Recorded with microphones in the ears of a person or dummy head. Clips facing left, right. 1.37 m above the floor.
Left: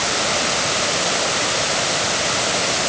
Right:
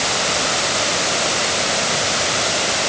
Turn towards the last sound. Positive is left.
No sound to turn to.